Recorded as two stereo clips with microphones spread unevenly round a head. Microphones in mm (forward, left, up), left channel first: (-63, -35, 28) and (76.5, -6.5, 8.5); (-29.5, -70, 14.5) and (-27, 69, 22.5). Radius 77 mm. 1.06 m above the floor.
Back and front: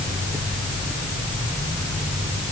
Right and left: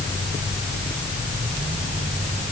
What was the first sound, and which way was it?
Only background noise.